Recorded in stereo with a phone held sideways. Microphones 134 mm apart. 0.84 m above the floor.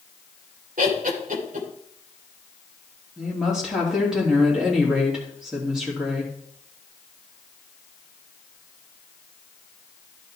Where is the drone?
I don't hear a drone.